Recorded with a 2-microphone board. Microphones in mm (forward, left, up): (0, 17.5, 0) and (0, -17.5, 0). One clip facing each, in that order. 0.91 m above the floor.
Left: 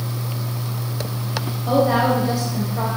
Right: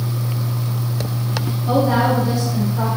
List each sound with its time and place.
1.7 s a woman speaking: 50° left (ahead or behind), 4 m